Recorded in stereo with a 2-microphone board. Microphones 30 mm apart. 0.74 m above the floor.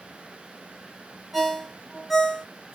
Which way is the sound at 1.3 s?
Centre (ahead or behind).